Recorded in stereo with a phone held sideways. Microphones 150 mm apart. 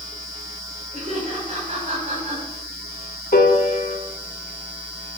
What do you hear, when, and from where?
0.9 s laughter: 50° right (ahead or behind), 5.5 m
3.3 s a piano: 75° left (ahead or behind), 1.4 m